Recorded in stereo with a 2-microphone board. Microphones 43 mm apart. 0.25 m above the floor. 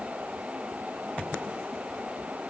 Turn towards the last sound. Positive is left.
No sound to turn to.